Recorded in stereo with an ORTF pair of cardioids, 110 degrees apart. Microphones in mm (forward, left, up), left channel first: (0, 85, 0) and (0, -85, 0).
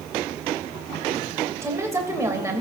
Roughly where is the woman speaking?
Ahead.